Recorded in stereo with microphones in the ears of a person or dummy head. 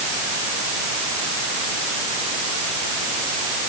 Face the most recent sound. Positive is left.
No sound to turn to.